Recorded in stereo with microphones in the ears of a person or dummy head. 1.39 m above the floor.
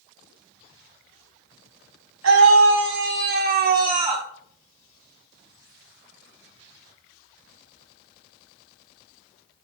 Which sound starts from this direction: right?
A scream, at 2.2 s.